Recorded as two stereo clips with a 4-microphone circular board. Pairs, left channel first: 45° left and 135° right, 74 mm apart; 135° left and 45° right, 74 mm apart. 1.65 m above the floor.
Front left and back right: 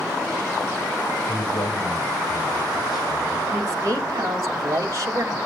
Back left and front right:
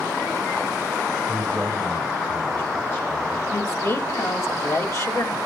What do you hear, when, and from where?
1.3 s a man speaking: 70° left, 8 m
3.5 s a woman speaking: straight behind, 2.0 m